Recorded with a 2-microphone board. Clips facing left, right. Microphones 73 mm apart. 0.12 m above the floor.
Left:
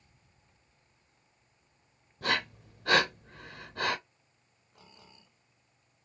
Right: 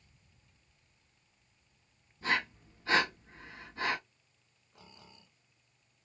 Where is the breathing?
65° left (ahead or behind), 1.1 m.